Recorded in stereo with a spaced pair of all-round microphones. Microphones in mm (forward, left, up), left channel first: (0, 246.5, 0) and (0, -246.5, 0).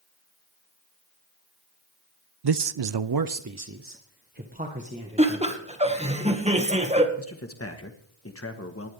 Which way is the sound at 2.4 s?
55° right (ahead or behind).